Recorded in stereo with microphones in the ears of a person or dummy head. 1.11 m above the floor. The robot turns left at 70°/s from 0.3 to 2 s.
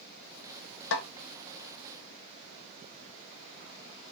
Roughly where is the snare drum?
Left.